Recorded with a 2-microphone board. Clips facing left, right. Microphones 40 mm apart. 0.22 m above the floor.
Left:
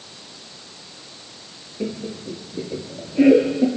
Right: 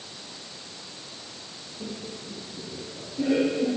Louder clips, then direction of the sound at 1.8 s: Left 9 dB; 60° left (ahead or behind).